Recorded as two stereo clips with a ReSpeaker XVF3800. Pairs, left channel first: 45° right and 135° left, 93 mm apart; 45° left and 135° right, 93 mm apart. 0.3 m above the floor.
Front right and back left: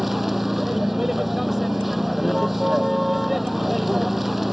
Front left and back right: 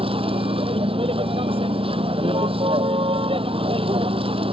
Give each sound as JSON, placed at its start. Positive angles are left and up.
{"t": 0.0, "sound": "a vehicle", "azimuth_deg": -140}